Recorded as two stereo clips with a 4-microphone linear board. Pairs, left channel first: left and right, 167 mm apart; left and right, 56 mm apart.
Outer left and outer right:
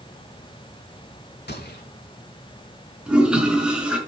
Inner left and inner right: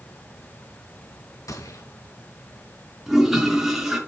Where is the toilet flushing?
5° right (ahead or behind), 4.5 m.